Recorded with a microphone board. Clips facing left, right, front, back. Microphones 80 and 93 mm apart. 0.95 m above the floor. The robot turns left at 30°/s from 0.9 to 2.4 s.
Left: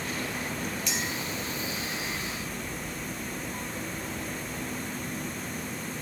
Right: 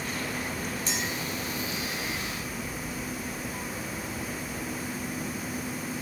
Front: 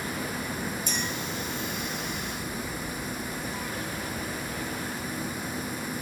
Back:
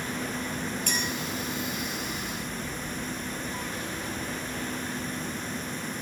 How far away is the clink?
About 3 m.